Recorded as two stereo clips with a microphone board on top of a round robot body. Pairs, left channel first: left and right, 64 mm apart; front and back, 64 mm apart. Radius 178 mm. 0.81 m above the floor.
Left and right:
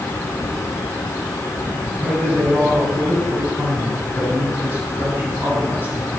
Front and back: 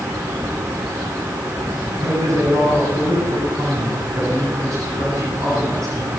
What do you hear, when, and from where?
2.0 s a man speaking: 150° right, 8.5 m